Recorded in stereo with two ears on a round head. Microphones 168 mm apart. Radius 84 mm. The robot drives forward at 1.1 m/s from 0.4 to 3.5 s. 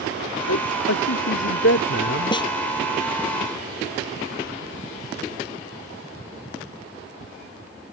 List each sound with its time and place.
0.5 s a man speaking: 80° left; by 2.4 s 55° left (ahead or behind)
2.3 s a snare drum: 25° left (ahead or behind)